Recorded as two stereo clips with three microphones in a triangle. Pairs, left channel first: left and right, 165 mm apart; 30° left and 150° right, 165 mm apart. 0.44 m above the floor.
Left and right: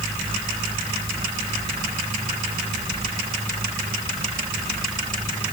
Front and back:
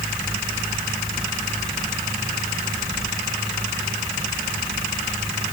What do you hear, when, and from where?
Only background noise.